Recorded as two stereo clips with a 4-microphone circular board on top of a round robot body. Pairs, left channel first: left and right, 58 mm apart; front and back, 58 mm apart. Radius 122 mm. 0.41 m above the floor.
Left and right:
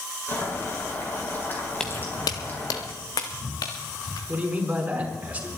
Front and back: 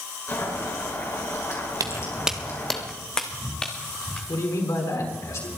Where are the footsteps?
175° left, 0.5 m; by 4.2 s 75° left, 3.5 m.